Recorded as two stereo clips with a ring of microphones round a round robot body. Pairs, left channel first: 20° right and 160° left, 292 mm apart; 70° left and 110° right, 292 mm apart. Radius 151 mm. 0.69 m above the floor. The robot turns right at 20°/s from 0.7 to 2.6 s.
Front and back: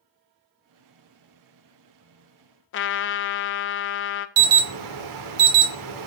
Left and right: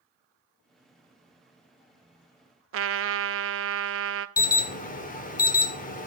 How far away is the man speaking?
No man speaking in this recording.